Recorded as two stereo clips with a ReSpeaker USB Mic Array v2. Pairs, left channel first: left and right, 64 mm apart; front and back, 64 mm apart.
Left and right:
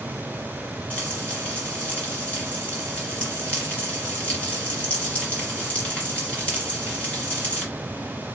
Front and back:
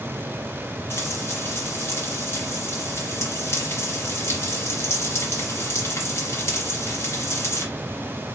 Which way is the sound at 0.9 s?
30° left.